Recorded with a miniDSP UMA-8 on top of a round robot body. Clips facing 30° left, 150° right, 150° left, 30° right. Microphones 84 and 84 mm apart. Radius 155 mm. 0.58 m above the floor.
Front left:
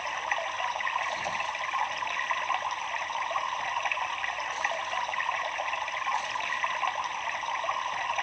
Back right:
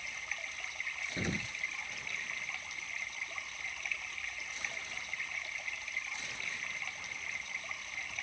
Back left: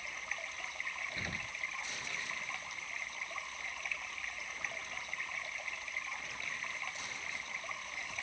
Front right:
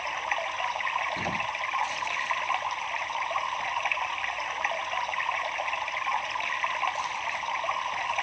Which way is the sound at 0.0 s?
5° right.